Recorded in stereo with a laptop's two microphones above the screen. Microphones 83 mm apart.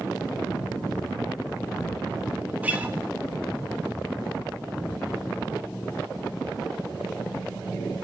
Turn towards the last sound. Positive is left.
turn(degrees=-20)  # may be behind; listen again after turning